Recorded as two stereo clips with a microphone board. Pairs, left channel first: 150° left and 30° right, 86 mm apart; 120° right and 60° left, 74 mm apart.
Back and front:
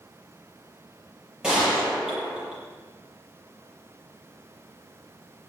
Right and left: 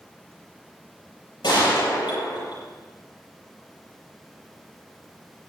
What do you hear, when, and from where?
1.4 s a gunshot: 110° right, 8.5 m